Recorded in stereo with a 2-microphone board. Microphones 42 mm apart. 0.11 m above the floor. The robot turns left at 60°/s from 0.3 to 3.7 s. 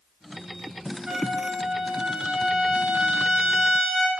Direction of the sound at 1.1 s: 25° right (ahead or behind).